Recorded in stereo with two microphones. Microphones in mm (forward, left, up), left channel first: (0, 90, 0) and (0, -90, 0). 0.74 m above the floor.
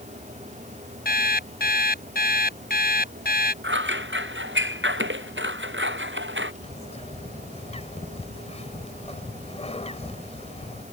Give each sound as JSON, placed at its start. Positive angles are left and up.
{"t": 1.1, "sound": "an alarm clock", "side_deg": 50}
{"t": 3.6, "sound": "scissors", "side_deg": -85}
{"t": 6.6, "sound": "a bird", "side_deg": 35}